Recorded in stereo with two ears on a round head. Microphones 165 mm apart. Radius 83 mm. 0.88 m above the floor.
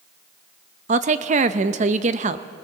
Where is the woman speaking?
40° right (ahead or behind), 0.7 m.